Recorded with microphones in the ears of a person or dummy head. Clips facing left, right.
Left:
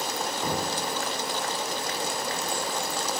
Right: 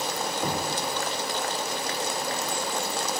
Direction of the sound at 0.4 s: 10° right (ahead or behind).